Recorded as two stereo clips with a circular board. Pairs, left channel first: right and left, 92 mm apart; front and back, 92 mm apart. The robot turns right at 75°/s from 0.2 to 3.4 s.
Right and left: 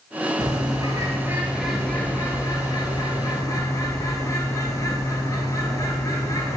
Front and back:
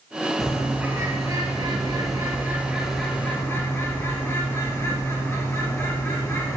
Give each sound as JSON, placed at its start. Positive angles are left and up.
{"t": 0.4, "sound": "a bird", "azimuth_deg": 80, "distance_m": 0.9}